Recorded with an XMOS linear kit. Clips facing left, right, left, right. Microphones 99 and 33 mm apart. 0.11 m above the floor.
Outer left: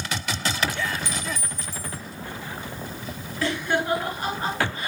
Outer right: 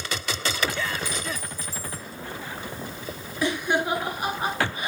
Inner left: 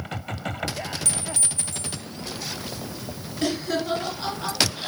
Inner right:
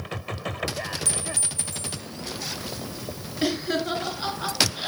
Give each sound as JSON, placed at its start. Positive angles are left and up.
{"t": 1.1, "sound": "a clink", "side_deg": -10, "distance_m": 1.7}
{"t": 3.4, "sound": "laughter", "side_deg": -15, "distance_m": 1.5}